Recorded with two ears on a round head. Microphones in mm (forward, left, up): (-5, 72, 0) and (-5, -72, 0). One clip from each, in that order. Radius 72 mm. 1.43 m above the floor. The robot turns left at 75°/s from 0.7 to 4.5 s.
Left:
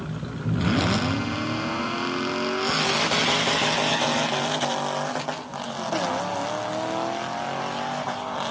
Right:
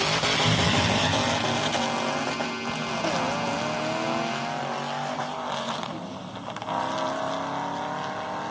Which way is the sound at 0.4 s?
5° left (ahead or behind).